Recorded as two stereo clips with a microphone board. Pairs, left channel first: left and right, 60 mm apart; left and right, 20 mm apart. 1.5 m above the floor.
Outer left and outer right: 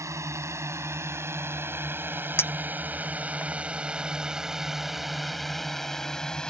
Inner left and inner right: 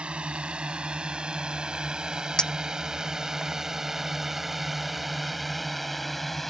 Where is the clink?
40° left (ahead or behind).